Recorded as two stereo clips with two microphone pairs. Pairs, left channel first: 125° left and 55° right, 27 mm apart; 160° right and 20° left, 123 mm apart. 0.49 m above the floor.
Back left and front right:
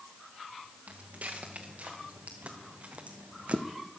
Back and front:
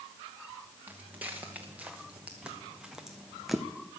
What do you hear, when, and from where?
0.9 s footsteps: 55° right, 2.5 m; by 3.7 s 75° right, 1.1 m